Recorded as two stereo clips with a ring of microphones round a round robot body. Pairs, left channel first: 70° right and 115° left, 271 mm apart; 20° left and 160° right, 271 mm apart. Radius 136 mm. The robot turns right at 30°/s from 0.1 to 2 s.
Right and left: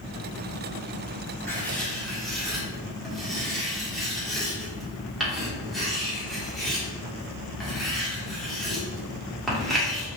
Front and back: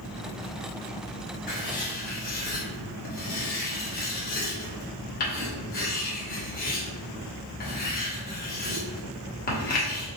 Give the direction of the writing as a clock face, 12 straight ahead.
12 o'clock.